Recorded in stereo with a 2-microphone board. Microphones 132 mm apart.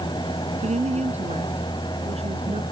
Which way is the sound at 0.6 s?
60° right (ahead or behind).